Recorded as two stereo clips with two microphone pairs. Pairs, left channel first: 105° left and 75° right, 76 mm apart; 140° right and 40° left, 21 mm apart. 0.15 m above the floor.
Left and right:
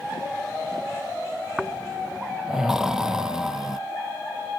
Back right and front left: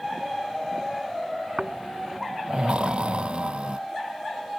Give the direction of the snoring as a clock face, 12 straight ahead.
12 o'clock.